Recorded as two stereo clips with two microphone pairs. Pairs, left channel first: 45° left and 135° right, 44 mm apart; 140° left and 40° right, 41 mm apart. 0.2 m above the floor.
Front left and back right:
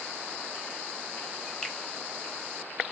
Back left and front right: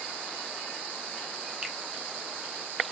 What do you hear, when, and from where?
1.6 s a finger snap: 15° right, 0.8 m